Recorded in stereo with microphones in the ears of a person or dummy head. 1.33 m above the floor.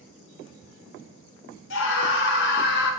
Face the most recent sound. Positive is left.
turn(degrees=80)